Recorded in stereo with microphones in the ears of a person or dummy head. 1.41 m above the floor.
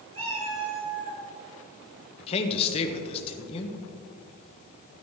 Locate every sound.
0.1 s a cat meowing: 30° right (ahead or behind), 5.5 m
2.2 s a man speaking: 30° left (ahead or behind), 1.4 m